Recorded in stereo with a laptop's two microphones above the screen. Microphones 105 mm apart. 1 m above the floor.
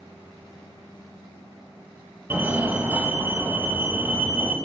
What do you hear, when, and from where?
2.3 s a fire alarm: 20° right (ahead or behind), 2 m